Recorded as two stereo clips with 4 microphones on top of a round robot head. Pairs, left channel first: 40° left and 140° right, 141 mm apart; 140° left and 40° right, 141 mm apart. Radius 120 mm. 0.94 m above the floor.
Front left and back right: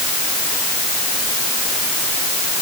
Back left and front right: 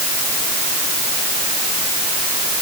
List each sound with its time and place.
Only background noise.